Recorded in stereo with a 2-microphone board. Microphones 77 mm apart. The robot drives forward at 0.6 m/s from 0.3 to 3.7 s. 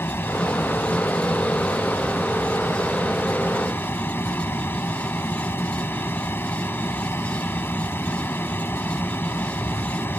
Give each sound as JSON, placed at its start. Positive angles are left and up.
{"t": 0.0, "sound": "an aircraft", "side_deg": 35}